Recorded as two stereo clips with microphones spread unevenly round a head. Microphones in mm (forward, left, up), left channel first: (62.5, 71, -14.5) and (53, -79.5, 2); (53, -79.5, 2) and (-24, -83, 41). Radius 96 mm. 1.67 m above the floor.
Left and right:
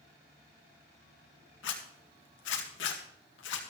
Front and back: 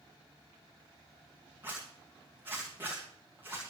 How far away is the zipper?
About 2 m.